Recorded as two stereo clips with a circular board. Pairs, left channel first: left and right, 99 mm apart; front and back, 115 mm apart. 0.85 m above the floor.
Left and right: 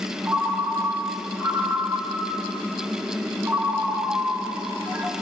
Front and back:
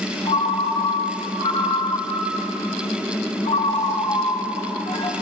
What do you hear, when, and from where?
0.2 s a ringtone: 25° right, 0.7 m